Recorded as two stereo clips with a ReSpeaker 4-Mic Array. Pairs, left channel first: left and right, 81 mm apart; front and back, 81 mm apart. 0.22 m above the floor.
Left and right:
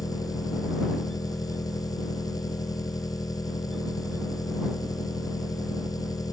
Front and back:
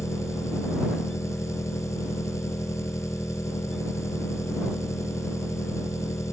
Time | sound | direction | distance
0.0 | an engine running | 50° left | ?